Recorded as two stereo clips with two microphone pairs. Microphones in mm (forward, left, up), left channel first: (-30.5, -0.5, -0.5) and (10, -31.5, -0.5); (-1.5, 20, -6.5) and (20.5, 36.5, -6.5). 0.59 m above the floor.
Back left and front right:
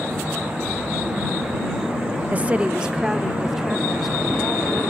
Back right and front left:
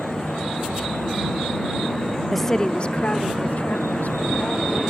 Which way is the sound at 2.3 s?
50° right.